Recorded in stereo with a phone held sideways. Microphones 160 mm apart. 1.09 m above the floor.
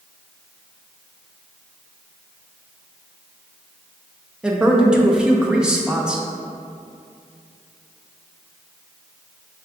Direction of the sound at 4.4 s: 5° right (ahead or behind).